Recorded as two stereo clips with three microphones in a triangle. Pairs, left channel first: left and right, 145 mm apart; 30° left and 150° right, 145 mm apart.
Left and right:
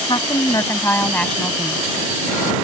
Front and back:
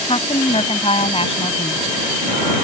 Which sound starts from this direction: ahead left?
A woman speaking, at 0.1 s.